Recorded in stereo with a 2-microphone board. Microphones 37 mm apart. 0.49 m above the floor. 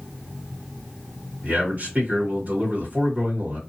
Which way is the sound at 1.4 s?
50° right (ahead or behind).